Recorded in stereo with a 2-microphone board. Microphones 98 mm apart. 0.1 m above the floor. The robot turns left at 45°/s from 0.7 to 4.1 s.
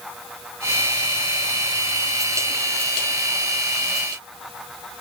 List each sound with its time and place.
Only background noise.